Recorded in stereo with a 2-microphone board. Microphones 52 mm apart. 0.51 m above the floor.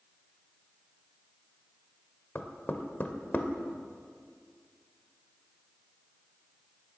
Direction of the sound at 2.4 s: 35° left (ahead or behind).